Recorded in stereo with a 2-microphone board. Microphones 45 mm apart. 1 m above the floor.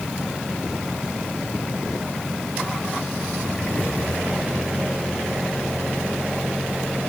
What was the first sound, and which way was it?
Only background noise.